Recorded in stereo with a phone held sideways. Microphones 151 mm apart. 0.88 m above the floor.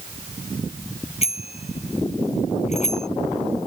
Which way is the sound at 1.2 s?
45° left (ahead or behind).